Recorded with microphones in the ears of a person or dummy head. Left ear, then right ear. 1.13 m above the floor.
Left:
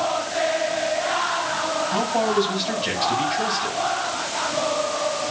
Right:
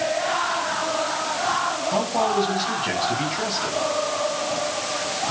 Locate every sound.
1.9 s a man speaking: 5° right (ahead or behind), 7.5 m